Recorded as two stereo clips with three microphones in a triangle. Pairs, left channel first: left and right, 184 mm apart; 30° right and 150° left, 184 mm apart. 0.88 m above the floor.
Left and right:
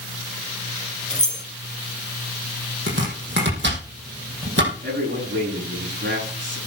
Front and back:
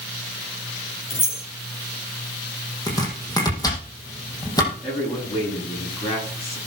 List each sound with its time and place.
1.1 s keys jangling: 5° left, 3.5 m
2.9 s chopping: 100° right, 4.5 m
4.8 s a man speaking: 90° right, 10 m